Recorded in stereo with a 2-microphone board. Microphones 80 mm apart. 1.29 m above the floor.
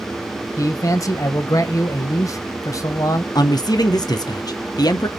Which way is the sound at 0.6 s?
45° left (ahead or behind).